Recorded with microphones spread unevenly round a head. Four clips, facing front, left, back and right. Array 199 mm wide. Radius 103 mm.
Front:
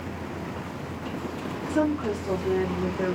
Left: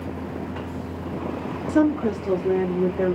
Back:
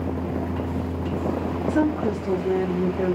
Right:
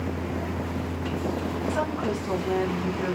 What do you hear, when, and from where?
1.7 s a woman speaking: 105° left, 1.3 m; by 3.1 s 120° left, 2.5 m